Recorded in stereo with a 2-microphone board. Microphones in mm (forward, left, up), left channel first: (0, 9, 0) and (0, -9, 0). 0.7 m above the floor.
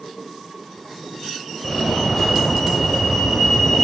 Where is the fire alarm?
5° left (ahead or behind), 5 m.